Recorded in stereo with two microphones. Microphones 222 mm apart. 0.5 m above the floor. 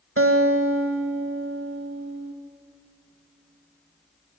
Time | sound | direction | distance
0.2 | a guitar | 70° right (ahead or behind) | 0.5 m